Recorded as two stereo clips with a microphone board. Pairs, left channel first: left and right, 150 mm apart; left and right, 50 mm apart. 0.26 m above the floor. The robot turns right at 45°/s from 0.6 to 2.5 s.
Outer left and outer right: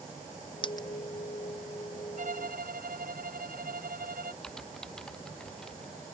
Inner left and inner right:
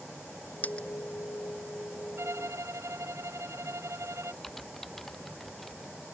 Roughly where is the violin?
Right.